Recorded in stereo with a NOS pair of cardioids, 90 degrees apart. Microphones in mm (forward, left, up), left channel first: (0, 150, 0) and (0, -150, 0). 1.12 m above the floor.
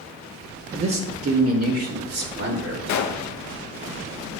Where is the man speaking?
40° right, 1.5 m; by 2.8 s 60° right, 2.5 m.